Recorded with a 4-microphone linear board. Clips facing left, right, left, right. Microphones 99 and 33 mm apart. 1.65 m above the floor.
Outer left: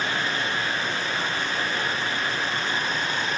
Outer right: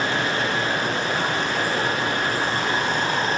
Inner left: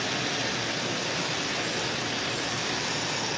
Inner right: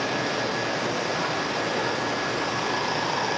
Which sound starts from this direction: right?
Running water, at 0.0 s.